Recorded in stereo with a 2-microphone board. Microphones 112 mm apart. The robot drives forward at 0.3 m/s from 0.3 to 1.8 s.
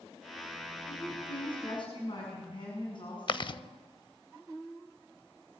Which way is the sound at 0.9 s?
50° left (ahead or behind).